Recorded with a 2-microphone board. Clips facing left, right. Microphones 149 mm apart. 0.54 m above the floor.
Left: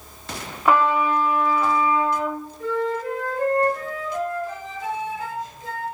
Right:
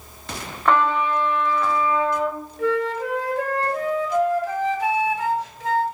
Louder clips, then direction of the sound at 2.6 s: Right 3 dB; 75° right (ahead or behind).